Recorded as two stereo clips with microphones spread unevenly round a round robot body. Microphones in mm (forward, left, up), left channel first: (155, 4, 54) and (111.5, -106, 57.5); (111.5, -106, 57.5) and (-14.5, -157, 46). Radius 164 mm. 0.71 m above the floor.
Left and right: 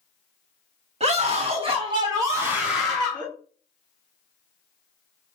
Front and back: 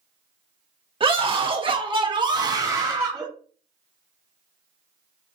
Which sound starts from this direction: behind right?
A scream, at 1.0 s.